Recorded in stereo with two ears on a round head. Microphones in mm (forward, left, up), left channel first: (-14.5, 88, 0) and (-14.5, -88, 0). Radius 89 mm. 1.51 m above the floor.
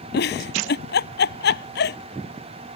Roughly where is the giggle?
Left.